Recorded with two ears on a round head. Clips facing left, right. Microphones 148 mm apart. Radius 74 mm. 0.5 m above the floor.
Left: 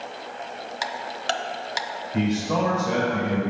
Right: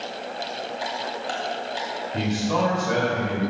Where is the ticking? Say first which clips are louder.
Left 2 dB; 75° left (ahead or behind), 0.6 m.